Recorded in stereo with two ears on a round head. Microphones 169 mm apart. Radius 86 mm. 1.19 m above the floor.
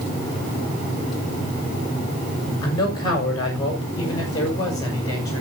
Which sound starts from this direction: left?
A man speaking, at 2.6 s.